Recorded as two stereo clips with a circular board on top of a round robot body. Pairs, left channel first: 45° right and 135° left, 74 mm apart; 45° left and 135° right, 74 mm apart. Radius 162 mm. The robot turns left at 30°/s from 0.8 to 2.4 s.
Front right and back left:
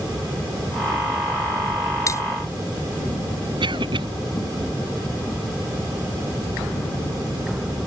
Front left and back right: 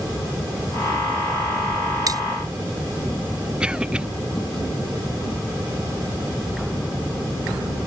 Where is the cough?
145° left.